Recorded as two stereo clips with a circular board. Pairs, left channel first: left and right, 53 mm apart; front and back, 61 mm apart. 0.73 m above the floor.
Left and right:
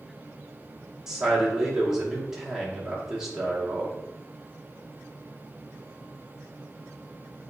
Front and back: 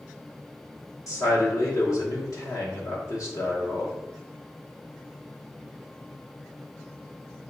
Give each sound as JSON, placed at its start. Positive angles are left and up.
{"t": 1.1, "sound": "a man speaking", "azimuth_deg": -15, "distance_m": 1.1}